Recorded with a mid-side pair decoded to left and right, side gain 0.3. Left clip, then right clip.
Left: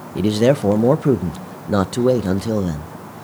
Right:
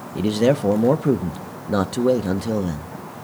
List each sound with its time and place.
0.1 s a man speaking: 30° left, 0.7 m